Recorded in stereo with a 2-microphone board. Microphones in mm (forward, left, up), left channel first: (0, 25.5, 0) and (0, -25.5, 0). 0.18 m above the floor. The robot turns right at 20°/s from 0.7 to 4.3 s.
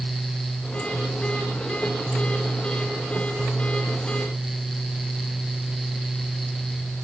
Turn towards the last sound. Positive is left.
No sound to turn to.